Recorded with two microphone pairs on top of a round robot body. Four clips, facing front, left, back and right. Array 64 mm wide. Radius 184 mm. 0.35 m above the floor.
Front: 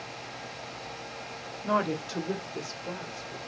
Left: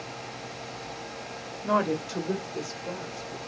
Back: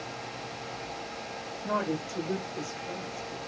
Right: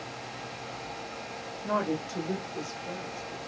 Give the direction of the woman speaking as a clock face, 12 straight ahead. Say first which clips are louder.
Left 4 dB, front 3 dB; 10 o'clock.